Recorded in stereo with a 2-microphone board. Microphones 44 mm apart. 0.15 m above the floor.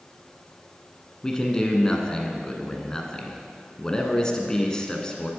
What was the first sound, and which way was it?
A man speaking, 15° left (ahead or behind).